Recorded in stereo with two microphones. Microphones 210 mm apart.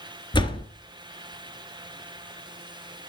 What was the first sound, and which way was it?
A door slam, 20° left (ahead or behind).